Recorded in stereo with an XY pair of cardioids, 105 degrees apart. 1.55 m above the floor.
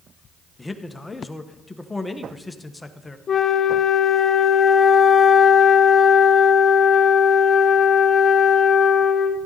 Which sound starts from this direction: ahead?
A man speaking, at 0.6 s.